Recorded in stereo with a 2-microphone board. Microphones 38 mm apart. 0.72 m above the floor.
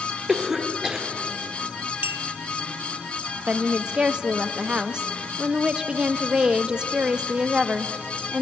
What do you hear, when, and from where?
0.3 s a cough: 10° right (ahead or behind), 1.6 m
2.0 s a clink: 60° right (ahead or behind), 0.5 m
3.5 s a woman speaking: 25° right (ahead or behind), 0.6 m